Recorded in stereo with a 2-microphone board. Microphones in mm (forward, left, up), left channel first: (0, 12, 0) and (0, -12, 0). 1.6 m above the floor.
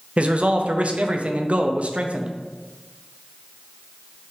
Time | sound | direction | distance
0.2 | a man speaking | 55° right (ahead or behind) | 0.8 m